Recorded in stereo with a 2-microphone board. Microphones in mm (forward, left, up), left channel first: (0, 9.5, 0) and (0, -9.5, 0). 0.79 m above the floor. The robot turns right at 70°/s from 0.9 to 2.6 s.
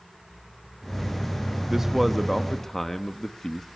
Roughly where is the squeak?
I don't hear a squeak.